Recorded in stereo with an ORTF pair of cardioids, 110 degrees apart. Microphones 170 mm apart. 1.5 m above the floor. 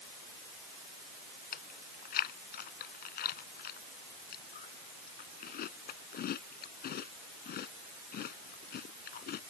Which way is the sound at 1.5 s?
60° left.